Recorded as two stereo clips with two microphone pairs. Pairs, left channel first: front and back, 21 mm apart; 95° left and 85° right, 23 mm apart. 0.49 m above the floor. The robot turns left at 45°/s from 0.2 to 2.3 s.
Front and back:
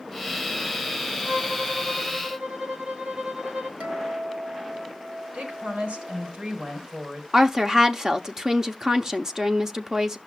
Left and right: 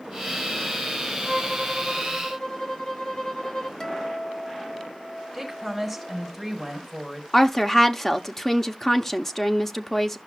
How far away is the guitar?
About 1.6 m.